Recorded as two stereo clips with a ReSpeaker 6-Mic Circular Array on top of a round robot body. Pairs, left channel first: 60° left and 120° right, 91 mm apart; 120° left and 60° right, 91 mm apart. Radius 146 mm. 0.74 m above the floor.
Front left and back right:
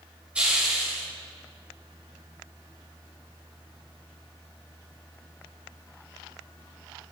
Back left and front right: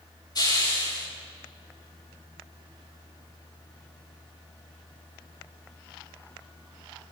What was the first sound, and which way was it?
A hiss, 160° left.